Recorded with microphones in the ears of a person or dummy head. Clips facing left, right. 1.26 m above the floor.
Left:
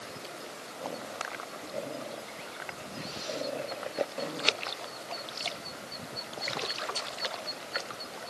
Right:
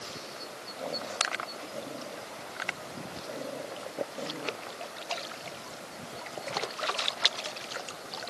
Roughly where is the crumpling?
No crumpling in this recording.